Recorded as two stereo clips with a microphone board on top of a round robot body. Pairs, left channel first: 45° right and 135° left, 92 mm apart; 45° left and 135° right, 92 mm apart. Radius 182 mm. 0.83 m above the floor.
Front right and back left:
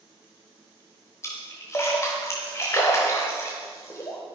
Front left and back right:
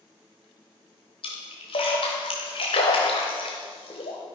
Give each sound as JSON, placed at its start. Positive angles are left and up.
{"t": 1.2, "sound": "a splash", "azimuth_deg": 20, "distance_m": 0.8}